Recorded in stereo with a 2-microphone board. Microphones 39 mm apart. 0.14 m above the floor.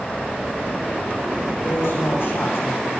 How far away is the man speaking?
About 8.5 m.